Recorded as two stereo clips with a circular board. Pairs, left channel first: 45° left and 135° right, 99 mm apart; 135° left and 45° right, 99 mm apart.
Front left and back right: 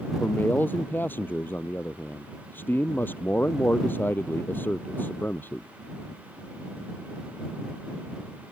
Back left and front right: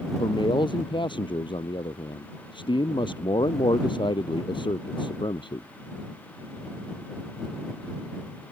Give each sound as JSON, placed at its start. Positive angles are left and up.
{"t": 0.2, "sound": "a man speaking", "azimuth_deg": 115}